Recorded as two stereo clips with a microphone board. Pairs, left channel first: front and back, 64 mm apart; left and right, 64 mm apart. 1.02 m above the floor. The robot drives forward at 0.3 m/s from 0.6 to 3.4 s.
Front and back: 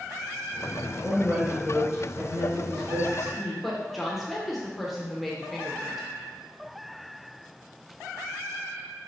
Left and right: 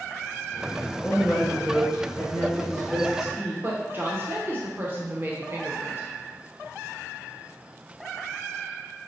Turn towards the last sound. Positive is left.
turn(degrees=-95)